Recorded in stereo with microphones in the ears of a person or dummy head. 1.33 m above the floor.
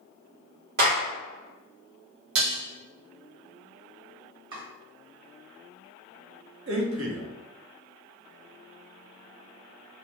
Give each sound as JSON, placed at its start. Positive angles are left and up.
{"t": 0.8, "sound": "a clap", "side_deg": -65, "distance_m": 1.5}
{"t": 2.4, "sound": "dishes clattering", "side_deg": -70, "distance_m": 0.9}
{"t": 4.5, "sound": "chopping", "side_deg": -30, "distance_m": 1.3}
{"t": 6.7, "sound": "a man speaking", "side_deg": -75, "distance_m": 0.8}